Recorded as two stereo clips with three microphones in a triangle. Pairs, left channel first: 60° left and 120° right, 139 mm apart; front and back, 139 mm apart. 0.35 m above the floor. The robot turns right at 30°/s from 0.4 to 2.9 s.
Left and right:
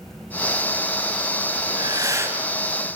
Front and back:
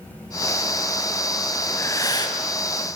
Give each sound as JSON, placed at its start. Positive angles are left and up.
{"t": 1.7, "sound": "breathing", "azimuth_deg": -70, "distance_m": 2.5}